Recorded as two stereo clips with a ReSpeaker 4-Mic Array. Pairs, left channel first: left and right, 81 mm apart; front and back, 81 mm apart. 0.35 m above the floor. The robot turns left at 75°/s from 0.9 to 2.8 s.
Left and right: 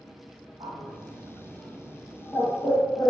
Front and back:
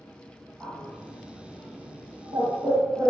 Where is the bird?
85° right, 0.9 m; by 3.1 s 130° left, 0.9 m.